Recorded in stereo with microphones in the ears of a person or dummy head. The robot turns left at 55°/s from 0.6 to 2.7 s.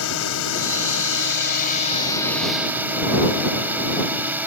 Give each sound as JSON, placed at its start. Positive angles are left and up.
{"t": 0.0, "sound": "a drone", "azimuth_deg": 100}